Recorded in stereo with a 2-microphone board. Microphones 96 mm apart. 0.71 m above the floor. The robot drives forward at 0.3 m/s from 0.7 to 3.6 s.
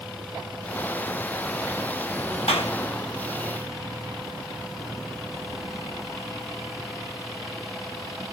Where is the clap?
75° left (ahead or behind), 4.5 m.